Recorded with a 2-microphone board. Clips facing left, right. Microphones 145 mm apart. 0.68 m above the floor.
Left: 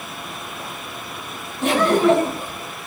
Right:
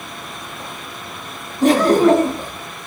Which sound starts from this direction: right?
Laughter, at 1.6 s.